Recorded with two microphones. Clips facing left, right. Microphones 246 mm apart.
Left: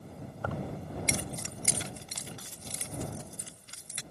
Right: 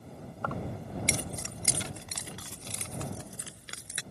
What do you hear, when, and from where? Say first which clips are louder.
0.4 s keys jangling: even; 10° left (ahead or behind); by 4.0 s 75° right (ahead or behind)